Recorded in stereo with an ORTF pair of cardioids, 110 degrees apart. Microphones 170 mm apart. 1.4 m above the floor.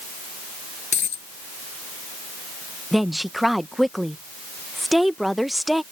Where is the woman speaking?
Straight ahead.